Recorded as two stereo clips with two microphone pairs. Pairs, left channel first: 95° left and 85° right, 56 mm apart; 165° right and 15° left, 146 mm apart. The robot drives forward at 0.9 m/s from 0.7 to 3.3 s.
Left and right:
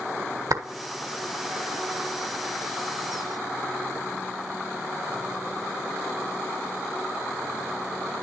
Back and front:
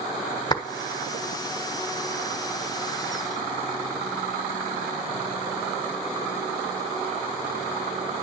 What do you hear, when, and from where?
0.5 s a clap: 100° right, 1.4 m